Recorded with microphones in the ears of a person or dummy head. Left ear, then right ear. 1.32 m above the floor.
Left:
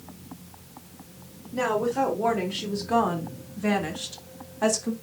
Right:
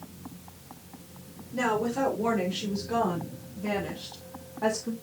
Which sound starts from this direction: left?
A woman speaking, at 1.5 s.